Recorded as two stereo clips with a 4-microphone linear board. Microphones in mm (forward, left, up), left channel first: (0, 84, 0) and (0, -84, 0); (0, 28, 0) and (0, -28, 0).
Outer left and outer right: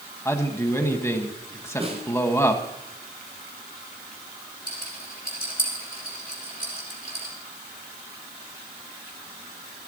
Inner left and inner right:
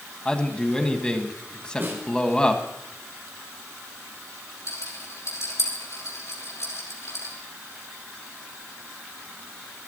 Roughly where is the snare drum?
Right.